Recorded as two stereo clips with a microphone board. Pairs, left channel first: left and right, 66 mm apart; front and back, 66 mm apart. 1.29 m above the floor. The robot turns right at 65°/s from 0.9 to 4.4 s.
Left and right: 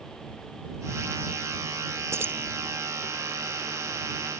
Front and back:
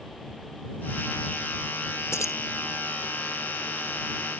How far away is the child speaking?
I don't hear a child speaking.